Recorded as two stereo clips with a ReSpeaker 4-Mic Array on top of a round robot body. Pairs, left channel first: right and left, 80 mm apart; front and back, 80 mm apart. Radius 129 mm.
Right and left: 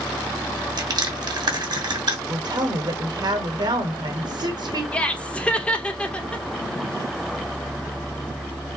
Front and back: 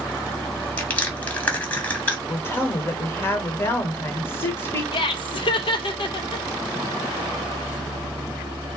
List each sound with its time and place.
0.8 s crushing: 70° left, 1.7 m
2.3 s a woman speaking: 60° left, 1.6 m
4.9 s laughter: 15° right, 1.0 m